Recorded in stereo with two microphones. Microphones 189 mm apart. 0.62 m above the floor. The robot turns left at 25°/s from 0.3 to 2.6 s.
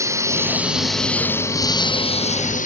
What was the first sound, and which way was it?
A lawn mower, 165° right.